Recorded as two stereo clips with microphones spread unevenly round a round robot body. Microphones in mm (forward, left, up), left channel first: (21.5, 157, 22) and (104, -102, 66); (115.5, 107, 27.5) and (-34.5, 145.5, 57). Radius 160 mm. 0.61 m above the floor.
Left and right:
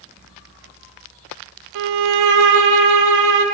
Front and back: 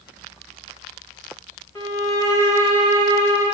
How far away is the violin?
About 0.6 m.